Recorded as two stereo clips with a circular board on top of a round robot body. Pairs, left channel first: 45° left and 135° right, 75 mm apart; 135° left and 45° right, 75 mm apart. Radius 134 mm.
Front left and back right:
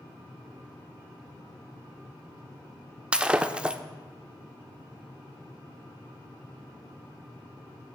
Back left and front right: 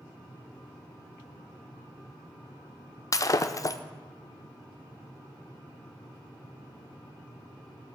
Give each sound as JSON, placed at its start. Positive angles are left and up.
{"t": 3.1, "sound": "breaking glass", "azimuth_deg": 150, "distance_m": 0.7}